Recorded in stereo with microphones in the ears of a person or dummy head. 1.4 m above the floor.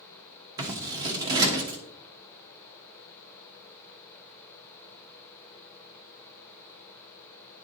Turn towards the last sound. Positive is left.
turn(degrees=-20)  # may be behind; listen again after turning